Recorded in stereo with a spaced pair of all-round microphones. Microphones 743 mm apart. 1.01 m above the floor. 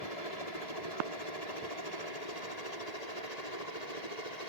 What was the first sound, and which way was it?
A helicopter, 60° left (ahead or behind).